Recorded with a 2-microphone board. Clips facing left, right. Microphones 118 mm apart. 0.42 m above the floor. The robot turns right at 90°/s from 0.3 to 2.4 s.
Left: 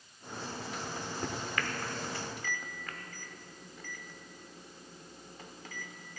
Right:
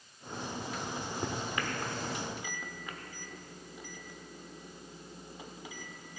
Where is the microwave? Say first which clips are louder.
Right 1 dB; centre (ahead or behind), 0.8 m; by 6.2 s 15° right (ahead or behind), 0.8 m.